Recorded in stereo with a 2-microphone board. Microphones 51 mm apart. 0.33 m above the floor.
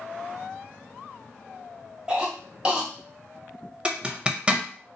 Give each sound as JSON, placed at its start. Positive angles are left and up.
{"t": 2.1, "sound": "a cough", "side_deg": -20, "distance_m": 1.0}
{"t": 3.9, "sound": "a zipper", "side_deg": -20, "distance_m": 0.5}